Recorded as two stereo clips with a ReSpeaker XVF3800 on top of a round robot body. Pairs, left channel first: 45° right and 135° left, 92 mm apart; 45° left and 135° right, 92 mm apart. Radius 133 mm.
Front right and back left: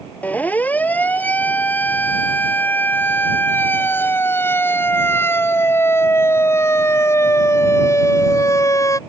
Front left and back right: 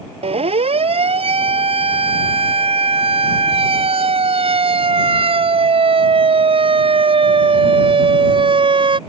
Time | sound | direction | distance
0.2 | a siren | 120° right | ?